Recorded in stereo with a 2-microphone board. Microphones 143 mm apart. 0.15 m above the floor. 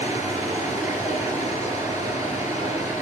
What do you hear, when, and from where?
0.0 s running water: 20° right (ahead or behind), 1.6 m